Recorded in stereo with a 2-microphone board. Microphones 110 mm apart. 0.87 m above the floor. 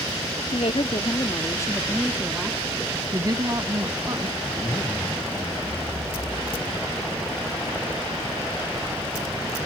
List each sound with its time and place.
0.5 s a woman speaking: 70° left (ahead or behind); by 3.0 s 20° right (ahead or behind)
3.1 s a woman speaking: 30° right (ahead or behind)
4.4 s a zipper: 40° left (ahead or behind)